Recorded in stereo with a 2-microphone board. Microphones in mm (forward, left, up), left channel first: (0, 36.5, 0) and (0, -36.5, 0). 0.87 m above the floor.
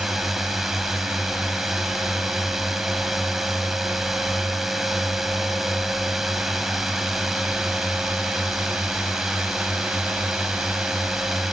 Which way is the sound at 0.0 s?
Centre (ahead or behind).